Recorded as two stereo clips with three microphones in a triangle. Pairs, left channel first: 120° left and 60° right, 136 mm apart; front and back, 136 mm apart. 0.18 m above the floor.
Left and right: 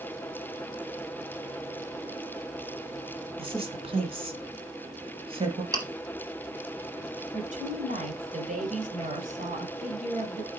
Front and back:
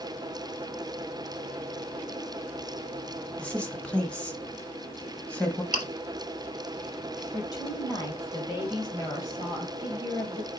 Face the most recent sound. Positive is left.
turn(degrees=-60)